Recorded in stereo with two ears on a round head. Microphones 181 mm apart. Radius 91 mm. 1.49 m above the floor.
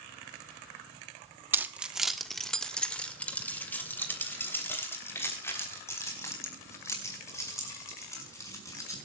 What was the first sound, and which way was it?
Keys jangling, 10° right (ahead or behind).